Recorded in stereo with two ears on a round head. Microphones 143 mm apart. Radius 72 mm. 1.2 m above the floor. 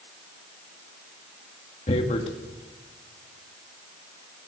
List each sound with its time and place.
1.9 s tearing paper: 40° left (ahead or behind), 2 m